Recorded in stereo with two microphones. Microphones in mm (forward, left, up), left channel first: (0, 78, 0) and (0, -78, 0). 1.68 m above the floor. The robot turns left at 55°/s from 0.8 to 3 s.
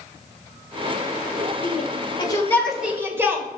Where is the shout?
60° left (ahead or behind), 2 m; by 3.5 s 15° right (ahead or behind), 2 m.